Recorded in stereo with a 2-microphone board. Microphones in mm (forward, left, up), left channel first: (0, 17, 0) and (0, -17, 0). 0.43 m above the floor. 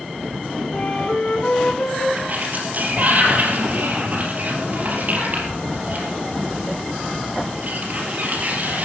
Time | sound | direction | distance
0.7 | a flute | 40° left (ahead or behind) | 1.4 m
2.2 | a sliding door | 45° right (ahead or behind) | 3 m